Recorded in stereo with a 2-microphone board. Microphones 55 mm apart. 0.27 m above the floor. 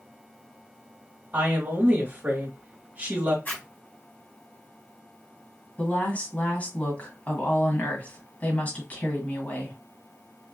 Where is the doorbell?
I don't hear a doorbell.